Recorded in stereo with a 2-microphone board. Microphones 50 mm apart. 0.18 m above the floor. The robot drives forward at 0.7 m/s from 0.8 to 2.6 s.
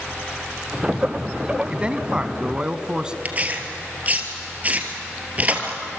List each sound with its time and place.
1.7 s a man speaking: 25° right (ahead or behind), 1.0 m; by 3.1 s 20° right (ahead or behind), 1.2 m
3.2 s tearing paper: 30° right (ahead or behind), 2 m